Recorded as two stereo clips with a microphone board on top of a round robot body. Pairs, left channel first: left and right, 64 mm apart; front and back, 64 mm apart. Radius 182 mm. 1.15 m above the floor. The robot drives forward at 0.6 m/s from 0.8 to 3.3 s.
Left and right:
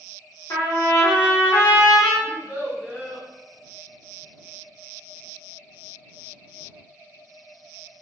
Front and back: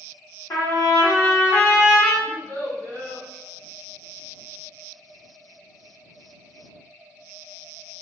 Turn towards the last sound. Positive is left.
turn(degrees=-160)